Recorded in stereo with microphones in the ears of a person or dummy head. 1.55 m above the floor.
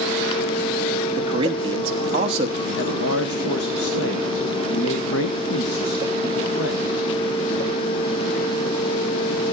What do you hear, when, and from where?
1.2 s a man speaking: 25° right (ahead or behind), 1.0 m
2.7 s a man speaking: 80° left, 1.4 m